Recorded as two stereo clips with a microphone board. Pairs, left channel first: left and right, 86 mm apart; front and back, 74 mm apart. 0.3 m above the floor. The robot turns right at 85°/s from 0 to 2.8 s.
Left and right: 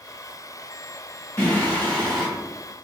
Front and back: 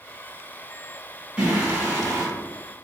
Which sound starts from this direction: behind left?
Singing, at 1.4 s.